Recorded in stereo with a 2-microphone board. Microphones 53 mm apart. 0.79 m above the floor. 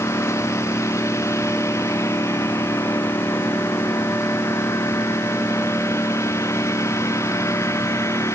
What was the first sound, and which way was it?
A lawn mower, 60° left (ahead or behind).